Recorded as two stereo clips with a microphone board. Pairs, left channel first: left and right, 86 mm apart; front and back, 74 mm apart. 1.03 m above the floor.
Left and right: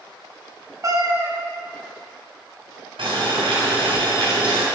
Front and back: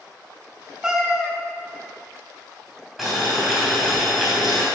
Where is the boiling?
95° right, 3 m.